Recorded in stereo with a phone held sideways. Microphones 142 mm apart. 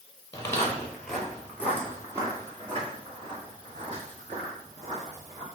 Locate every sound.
0.3 s footsteps: 20° left (ahead or behind), 1.6 m; by 5.5 s 60° right (ahead or behind), 3.5 m